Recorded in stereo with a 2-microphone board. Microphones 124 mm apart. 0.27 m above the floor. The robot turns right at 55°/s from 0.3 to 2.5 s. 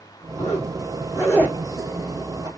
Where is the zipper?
70° left (ahead or behind), 2.5 m; by 2.5 s 45° right (ahead or behind), 2.5 m.